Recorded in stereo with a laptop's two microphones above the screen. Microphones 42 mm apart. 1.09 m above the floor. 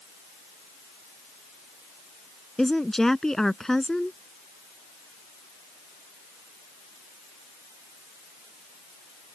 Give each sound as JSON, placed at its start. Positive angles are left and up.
{"t": 2.6, "sound": "a woman speaking", "side_deg": 10}